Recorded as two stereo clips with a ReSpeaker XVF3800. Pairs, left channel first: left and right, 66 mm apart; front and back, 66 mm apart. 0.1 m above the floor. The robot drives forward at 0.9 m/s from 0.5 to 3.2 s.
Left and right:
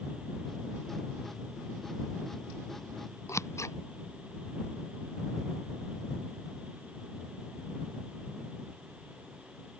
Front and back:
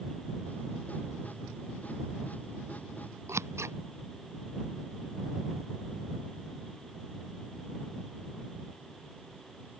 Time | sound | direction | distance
3.3 | scissors | 135° left | ?